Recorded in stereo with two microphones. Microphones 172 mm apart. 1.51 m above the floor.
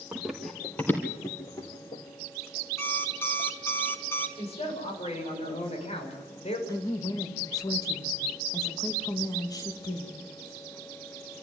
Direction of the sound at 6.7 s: 20° left (ahead or behind).